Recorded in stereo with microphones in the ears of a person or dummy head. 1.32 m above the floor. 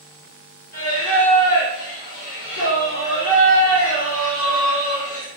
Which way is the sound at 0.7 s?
40° left (ahead or behind).